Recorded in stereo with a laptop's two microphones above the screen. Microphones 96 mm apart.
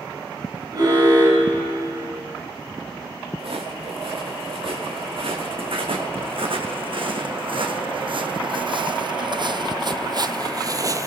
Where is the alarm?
45° right (ahead or behind), 6.5 m.